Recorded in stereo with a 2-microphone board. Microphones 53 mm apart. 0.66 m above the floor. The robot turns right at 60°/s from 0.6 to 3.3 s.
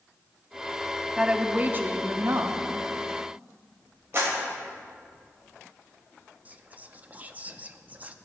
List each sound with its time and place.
1.2 s a woman speaking: 165° right, 0.8 m; by 2.6 s 80° right, 0.8 m
4.1 s a clap: 50° right (ahead or behind), 3 m
6.5 s whispering: 30° right (ahead or behind), 0.5 m